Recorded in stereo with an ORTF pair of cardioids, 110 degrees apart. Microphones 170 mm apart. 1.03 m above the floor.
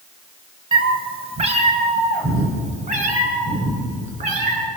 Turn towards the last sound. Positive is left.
turn(degrees=-50)